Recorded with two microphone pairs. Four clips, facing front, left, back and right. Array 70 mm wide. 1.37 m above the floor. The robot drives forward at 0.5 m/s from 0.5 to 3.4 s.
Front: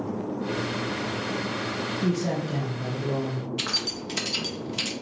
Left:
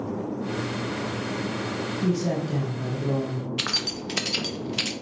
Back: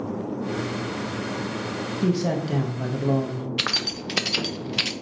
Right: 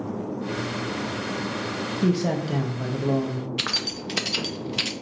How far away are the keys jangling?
About 0.5 m.